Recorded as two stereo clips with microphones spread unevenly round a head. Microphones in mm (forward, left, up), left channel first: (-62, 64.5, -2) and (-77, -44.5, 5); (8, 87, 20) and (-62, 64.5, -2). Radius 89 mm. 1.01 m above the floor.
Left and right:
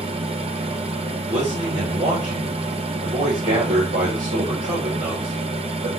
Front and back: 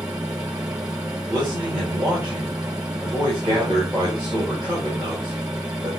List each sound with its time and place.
0.0 s a fan: 105° right, 1.2 m
1.3 s a man speaking: 90° right, 4 m